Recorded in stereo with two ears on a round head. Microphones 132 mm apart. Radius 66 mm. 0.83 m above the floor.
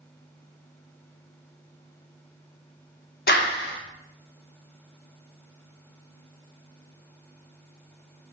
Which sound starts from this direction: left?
A clap, at 3.3 s.